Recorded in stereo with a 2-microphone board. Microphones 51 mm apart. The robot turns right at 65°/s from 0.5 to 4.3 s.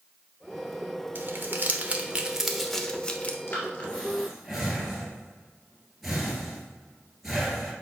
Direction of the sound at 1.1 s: 45° right (ahead or behind).